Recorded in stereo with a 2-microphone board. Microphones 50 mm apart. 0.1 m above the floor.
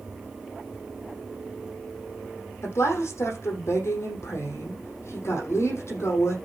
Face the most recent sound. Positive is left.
turn(degrees=60)  # may be behind; listen again after turning